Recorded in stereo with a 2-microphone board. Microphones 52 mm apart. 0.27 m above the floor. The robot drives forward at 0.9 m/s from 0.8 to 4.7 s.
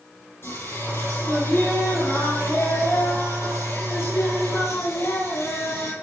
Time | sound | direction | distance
0.4 | singing | 55° left (ahead or behind) | 9 m